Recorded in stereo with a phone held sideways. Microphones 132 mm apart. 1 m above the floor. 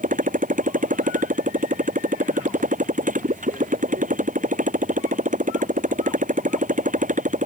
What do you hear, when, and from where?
0.0 s a motorcycle: 85° right; by 7.5 s 75° right (ahead or behind)